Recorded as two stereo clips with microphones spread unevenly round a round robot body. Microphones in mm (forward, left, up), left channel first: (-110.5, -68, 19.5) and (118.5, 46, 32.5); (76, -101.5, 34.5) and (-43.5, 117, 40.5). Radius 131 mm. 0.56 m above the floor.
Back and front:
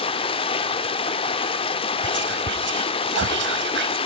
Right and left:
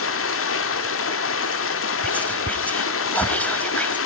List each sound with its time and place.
0.0 s running water: 90° right, 1.1 m
2.0 s whispering: 20° left, 1.0 m